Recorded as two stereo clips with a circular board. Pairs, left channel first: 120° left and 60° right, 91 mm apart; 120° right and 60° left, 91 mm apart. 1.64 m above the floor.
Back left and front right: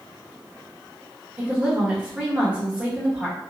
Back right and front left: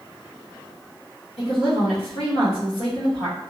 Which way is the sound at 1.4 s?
135° right.